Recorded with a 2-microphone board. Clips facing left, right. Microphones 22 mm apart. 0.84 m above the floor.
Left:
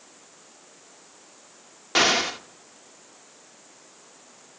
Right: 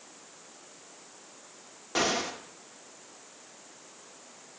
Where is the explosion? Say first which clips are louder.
Left 8 dB; 50° left (ahead or behind), 1.1 m.